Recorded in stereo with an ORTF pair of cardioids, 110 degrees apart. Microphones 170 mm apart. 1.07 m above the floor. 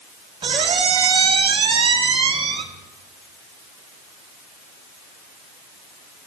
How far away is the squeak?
About 1.0 m.